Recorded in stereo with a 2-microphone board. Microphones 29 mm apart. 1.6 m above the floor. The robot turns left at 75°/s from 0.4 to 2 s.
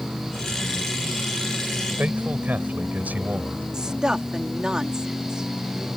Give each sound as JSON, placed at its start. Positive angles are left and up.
{"t": 2.0, "sound": "a man speaking", "side_deg": -75}
{"t": 3.7, "sound": "a woman speaking", "side_deg": -25}